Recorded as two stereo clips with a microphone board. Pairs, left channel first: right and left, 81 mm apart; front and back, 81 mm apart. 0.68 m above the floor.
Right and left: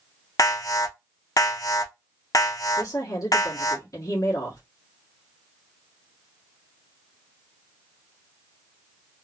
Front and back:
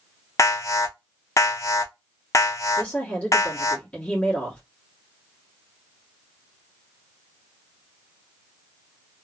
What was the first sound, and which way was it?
An alarm, 50° right.